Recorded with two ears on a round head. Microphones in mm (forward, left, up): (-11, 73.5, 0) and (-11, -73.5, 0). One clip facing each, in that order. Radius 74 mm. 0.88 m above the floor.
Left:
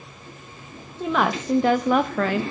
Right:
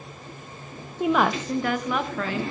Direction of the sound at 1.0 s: 10° right (ahead or behind).